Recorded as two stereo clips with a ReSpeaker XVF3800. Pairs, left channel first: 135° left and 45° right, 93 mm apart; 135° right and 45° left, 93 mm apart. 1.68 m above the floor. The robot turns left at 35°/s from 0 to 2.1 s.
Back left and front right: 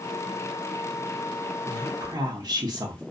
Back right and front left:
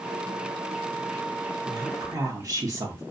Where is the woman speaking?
10° left, 0.6 m; by 3.0 s 5° right, 0.6 m.